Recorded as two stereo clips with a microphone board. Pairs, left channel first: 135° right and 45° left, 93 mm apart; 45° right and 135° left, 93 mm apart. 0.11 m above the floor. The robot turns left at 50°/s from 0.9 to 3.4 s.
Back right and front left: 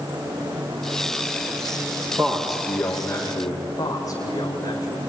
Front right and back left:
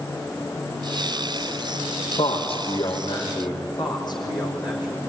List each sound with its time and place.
2.2 s a man speaking: 25° right, 5 m; by 3.6 s 85° right, 5 m
3.8 s a man speaking: 85° right, 4.5 m